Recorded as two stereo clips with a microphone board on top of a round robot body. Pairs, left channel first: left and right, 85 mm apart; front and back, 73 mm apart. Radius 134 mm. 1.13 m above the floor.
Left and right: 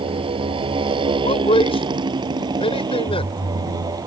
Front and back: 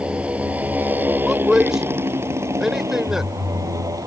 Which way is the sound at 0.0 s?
105° right.